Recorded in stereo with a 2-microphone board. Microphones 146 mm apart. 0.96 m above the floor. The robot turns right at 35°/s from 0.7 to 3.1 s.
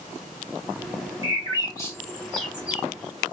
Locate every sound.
1.2 s a bird: 40° left (ahead or behind), 1.9 m; by 2.8 s 15° right (ahead or behind), 1.9 m